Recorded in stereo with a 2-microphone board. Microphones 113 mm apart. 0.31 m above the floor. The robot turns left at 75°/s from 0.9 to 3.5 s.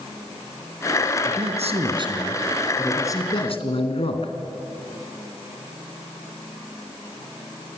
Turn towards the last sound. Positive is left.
turn(degrees=120)